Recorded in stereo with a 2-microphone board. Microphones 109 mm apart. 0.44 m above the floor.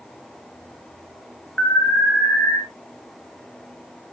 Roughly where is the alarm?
Centre.